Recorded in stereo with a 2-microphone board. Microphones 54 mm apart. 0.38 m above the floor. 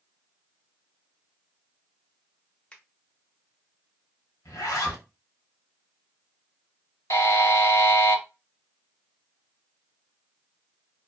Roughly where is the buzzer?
Left.